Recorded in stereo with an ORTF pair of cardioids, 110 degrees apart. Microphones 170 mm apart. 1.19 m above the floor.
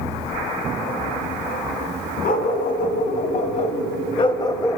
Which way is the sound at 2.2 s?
65° left.